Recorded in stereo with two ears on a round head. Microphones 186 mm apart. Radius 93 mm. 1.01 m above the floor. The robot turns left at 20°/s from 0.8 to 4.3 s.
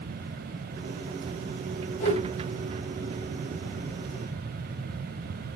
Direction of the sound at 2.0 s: 35° left (ahead or behind).